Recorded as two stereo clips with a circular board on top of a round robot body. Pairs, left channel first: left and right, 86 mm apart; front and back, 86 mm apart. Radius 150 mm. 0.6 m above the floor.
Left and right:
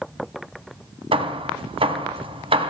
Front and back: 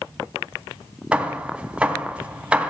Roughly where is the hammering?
Right.